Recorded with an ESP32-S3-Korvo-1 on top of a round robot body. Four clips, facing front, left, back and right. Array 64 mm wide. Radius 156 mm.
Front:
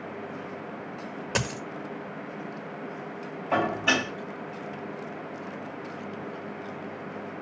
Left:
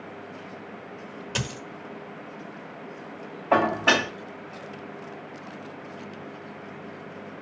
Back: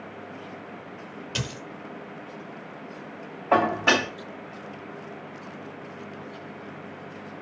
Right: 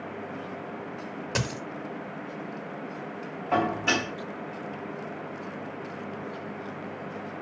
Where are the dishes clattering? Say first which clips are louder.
Left 5 dB, back 4 dB; 140° left, 1.7 m.